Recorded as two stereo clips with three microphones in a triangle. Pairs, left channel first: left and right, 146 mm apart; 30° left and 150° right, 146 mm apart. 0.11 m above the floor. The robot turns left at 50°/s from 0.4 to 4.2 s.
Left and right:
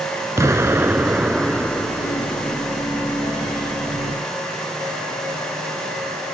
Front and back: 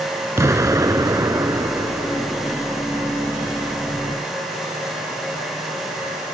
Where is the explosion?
120° right; by 2.6 s 130° left.